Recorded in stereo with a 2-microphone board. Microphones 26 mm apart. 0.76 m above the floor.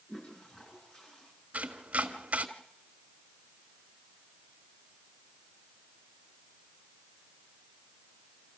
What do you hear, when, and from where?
0.1 s a toilet flushing: 40° left (ahead or behind), 8 m
1.5 s chopping: 65° right (ahead or behind), 1.6 m